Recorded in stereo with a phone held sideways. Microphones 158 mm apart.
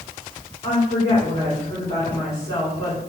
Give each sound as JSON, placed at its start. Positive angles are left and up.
{"t": 0.6, "sound": "a woman speaking", "side_deg": 45, "distance_m": 3.5}